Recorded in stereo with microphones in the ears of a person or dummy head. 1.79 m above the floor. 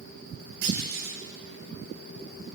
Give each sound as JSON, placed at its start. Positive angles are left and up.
{"t": 0.6, "sound": "a clunk", "side_deg": -60, "distance_m": 8.5}